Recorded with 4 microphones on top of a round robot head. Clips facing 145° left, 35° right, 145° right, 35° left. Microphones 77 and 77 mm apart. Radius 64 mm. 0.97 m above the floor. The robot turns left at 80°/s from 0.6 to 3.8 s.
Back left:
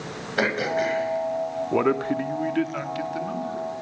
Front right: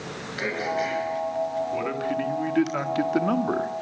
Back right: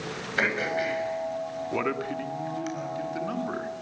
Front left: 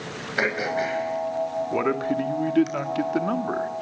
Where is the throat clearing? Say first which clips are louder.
Back left 4 dB, front left 2 dB; 115° left, 6.5 m; by 2.7 s 55° right, 6.5 m.